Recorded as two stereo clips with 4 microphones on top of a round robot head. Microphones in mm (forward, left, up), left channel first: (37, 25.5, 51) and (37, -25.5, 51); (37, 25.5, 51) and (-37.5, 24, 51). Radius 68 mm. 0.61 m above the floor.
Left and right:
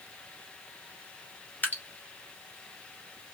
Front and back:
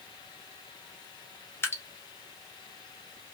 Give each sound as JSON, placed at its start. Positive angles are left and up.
{"t": 1.6, "sound": "dripping", "azimuth_deg": 50, "distance_m": 1.3}